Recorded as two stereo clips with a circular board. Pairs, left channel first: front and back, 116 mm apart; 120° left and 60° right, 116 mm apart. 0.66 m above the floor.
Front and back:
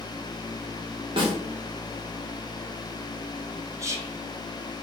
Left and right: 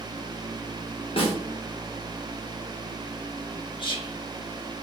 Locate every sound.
1.2 s a snare drum: 145° left, 0.9 m
3.8 s whispering: 130° left, 0.7 m